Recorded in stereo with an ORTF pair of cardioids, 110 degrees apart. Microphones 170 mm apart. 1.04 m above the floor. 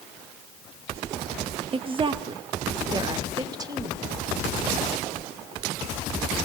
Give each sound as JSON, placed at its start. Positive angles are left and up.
{"t": 1.7, "sound": "a woman speaking", "azimuth_deg": -35, "distance_m": 1.8}